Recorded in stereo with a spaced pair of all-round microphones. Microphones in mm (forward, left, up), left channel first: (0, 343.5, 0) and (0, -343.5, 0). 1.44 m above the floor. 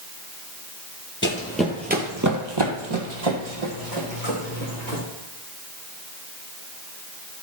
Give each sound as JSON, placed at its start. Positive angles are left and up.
{"t": 1.2, "sound": "running footsteps", "side_deg": 15, "distance_m": 1.5}